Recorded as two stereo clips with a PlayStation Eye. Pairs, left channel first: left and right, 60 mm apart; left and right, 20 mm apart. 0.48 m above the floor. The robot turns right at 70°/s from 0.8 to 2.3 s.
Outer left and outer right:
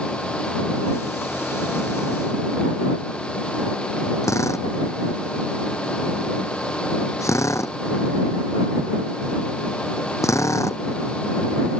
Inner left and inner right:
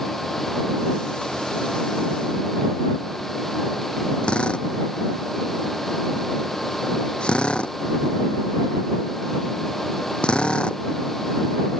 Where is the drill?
50° left (ahead or behind).